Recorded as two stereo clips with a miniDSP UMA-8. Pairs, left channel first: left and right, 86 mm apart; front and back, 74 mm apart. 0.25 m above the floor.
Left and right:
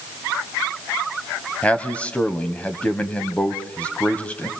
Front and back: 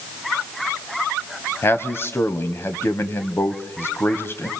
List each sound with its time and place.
1.6 s a man speaking: 25° left, 1.3 m